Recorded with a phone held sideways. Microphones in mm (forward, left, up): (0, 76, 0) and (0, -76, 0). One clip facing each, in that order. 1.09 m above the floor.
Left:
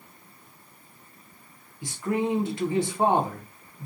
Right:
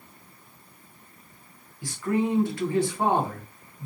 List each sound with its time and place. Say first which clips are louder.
1.8 s a man speaking: right 1 dB; 20° left (ahead or behind), 0.6 m